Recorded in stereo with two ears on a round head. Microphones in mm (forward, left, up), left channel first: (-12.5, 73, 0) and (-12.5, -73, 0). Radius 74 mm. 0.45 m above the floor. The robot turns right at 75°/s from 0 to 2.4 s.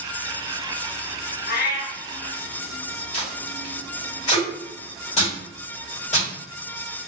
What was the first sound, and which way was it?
A cat meowing, 100° left.